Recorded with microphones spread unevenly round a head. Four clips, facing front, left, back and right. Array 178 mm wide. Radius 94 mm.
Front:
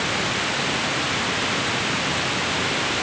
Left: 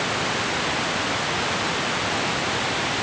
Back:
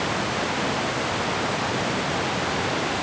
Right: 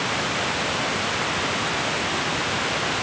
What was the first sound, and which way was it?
Only background noise.